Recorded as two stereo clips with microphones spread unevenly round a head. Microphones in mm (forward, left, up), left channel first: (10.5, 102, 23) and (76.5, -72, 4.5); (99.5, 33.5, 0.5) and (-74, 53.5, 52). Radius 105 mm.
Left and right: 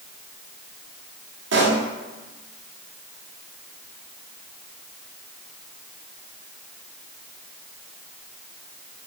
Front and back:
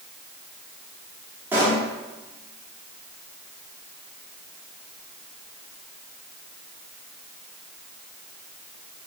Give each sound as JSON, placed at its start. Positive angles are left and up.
{"t": 1.5, "sound": "a pop", "azimuth_deg": -110, "distance_m": 1.4}